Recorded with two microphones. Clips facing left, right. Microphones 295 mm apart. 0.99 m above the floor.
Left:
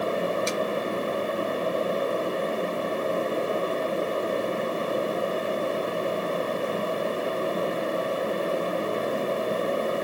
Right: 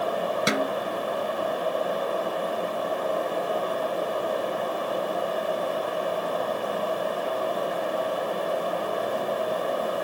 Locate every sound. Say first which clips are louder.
0.5 s a snare drum: right 2 dB; 80° right